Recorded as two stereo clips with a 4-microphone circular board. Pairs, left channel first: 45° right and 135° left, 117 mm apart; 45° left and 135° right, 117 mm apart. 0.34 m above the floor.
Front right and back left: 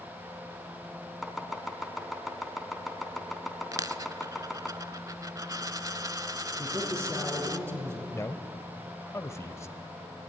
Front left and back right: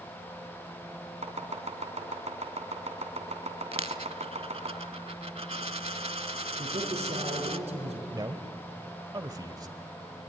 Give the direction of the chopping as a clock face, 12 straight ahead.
4 o'clock.